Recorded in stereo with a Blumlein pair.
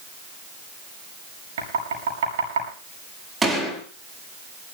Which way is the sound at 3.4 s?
15° right.